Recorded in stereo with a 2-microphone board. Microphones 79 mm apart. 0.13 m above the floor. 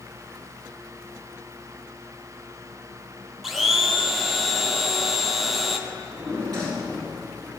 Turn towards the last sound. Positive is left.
turn(degrees=-65)  # may be behind; listen again after turning